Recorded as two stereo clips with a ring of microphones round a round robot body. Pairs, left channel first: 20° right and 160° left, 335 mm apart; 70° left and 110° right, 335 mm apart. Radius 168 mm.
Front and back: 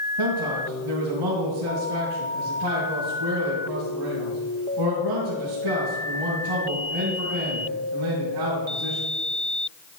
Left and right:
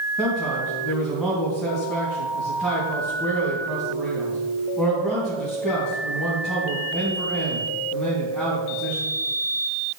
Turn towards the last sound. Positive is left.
turn(degrees=160)